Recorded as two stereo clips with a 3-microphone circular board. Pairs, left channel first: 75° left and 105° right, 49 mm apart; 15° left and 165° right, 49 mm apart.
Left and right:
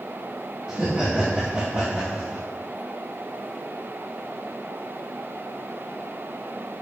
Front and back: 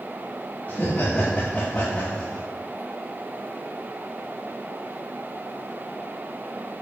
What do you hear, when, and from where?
0.7 s laughter: 35° right, 2.5 m; by 2.4 s 60° right, 2.5 m